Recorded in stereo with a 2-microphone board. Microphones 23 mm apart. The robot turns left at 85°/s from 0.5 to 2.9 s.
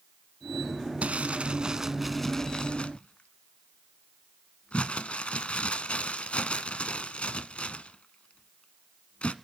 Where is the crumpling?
80° right, 1.1 m; by 9.3 s 70° left (ahead or behind), 1.1 m.